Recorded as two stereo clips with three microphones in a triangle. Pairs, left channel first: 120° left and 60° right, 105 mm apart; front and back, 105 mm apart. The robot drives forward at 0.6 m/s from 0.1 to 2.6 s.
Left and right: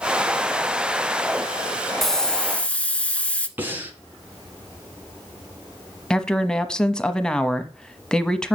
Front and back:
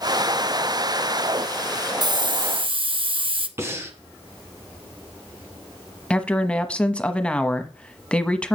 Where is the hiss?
155° right, 0.7 m; by 3.5 s 165° right, 1.0 m.